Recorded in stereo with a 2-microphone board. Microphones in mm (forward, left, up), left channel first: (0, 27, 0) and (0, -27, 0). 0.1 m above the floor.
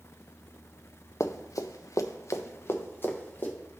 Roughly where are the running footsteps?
Left.